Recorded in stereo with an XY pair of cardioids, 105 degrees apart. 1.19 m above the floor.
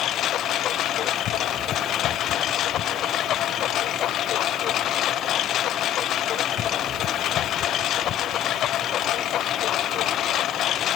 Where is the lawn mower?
70° left.